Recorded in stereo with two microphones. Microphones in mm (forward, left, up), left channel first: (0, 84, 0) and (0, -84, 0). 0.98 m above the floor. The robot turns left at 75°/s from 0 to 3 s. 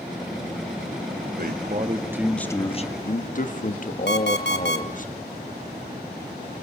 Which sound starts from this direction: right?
A man speaking, at 1.3 s.